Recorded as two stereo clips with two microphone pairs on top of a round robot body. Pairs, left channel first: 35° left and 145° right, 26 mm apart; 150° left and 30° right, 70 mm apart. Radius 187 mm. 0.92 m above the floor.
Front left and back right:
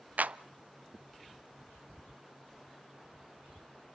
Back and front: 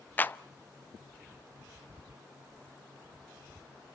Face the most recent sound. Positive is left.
turn(degrees=-140)